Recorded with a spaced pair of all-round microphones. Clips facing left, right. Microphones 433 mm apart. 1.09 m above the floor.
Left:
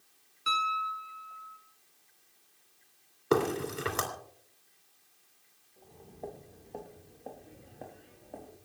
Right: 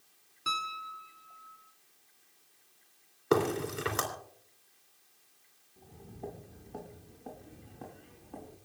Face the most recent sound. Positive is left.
turn(degrees=-20)  # may be behind; listen again after turning